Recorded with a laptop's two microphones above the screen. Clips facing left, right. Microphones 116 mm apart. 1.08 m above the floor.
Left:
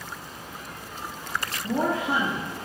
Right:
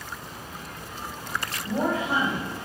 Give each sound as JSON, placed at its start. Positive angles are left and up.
{"t": 1.6, "sound": "a woman speaking", "side_deg": 65, "distance_m": 1.7}